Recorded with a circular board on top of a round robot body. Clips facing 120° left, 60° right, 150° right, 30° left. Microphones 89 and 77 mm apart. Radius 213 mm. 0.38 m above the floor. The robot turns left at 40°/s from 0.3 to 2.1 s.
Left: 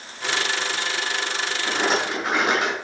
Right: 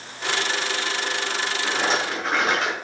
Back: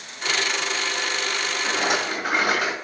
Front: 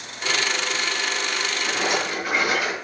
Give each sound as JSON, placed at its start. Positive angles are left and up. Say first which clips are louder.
{"t": 1.6, "sound": "a rattle", "louder": "left 2 dB, back 1 dB", "azimuth_deg": -145, "distance_m": 5.5}